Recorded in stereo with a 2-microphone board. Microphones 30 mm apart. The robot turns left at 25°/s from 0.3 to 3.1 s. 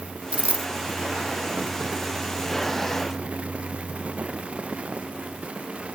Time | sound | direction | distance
0.3 | a dropped coin | 45° right (ahead or behind) | ?